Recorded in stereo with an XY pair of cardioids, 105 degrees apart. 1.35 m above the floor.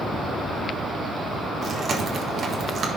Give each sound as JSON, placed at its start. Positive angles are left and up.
{"t": 1.6, "sound": "chewing", "azimuth_deg": -50, "distance_m": 1.4}